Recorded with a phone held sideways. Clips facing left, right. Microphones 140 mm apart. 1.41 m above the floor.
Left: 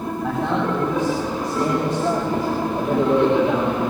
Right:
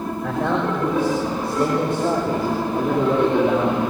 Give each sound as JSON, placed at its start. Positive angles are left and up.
{"t": 0.2, "sound": "a man speaking", "side_deg": -65, "distance_m": 6.5}